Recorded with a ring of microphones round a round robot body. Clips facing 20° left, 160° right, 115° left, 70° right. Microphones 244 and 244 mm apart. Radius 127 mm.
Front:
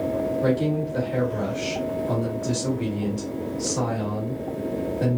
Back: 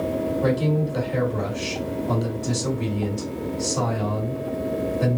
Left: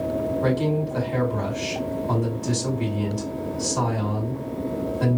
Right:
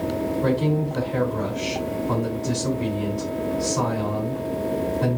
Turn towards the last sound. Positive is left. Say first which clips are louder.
# even, right 1 dB
turn(degrees=110)